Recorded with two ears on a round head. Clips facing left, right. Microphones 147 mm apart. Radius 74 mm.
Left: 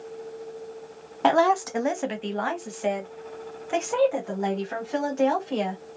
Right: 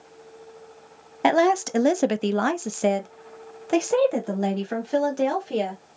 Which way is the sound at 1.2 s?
15° right (ahead or behind).